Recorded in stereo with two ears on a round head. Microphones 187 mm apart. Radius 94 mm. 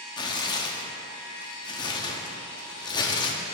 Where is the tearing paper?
20° left (ahead or behind), 0.7 m.